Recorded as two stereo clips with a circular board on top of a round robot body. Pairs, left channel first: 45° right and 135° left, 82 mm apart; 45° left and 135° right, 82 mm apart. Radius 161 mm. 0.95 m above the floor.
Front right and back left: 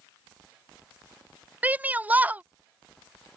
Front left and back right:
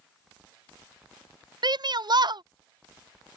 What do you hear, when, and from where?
1.6 s a shout: 155° right